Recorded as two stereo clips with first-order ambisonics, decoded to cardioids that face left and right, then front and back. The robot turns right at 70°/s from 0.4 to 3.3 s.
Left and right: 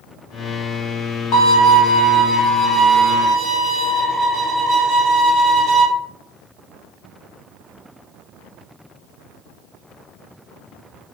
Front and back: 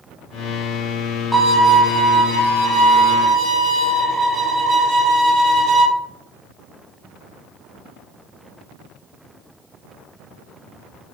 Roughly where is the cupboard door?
I don't hear a cupboard door.